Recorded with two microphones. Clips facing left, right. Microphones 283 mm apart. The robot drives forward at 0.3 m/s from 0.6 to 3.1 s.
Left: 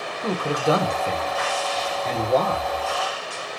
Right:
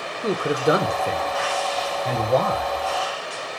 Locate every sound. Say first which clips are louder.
0.2 s a man speaking: right 2 dB; 20° right (ahead or behind), 0.9 m; by 2.7 s 10° right (ahead or behind), 1.5 m